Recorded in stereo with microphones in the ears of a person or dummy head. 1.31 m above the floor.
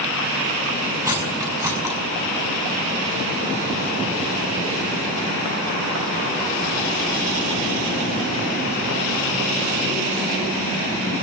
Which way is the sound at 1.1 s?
15° right (ahead or behind).